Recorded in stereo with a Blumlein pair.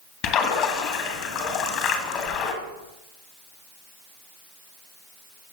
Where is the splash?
35° left, 1.5 m.